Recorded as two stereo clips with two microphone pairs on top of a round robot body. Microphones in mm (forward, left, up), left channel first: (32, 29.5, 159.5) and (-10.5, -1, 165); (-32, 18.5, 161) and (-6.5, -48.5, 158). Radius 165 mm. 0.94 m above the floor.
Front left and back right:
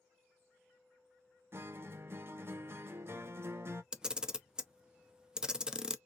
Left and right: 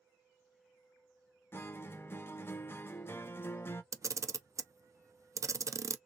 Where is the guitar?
170° left, 0.6 m.